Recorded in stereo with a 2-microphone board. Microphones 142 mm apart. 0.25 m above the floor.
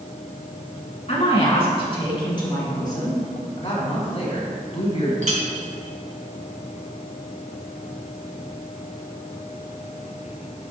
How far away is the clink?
About 1.6 m.